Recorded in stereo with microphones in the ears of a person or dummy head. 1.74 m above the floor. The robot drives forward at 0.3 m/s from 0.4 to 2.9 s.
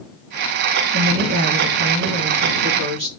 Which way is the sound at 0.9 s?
60° right (ahead or behind).